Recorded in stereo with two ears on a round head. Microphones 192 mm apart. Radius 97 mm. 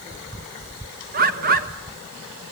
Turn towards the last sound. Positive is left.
turn(degrees=-40)  # may be behind; listen again after turning